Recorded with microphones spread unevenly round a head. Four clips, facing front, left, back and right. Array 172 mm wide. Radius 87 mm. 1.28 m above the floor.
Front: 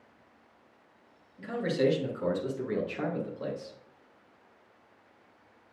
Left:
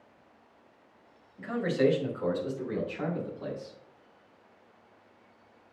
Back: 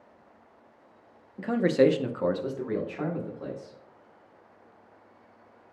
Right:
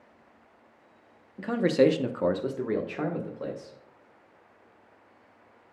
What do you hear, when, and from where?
1.4 s a man speaking: 155° right, 1.2 m; by 3.8 s 55° right, 3 m